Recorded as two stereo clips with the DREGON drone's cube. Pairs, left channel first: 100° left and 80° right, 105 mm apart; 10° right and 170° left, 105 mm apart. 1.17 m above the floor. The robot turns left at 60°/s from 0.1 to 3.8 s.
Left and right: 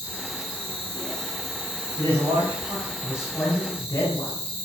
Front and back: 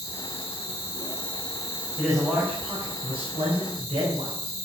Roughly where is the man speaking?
Right.